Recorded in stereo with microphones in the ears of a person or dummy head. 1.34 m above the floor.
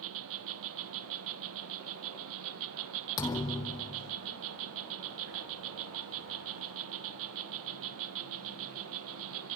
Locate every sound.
0.0 s an insect: 70° right (ahead or behind), 0.8 m
3.2 s a thud: 25° left (ahead or behind), 1.6 m